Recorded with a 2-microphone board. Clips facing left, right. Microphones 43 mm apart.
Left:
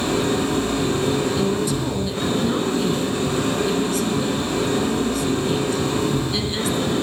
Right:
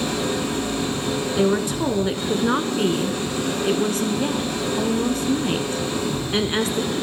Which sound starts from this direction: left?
An engine running, at 0.0 s.